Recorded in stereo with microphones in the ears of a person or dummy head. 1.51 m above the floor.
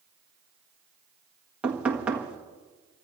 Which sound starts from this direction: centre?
Knocking, at 1.6 s.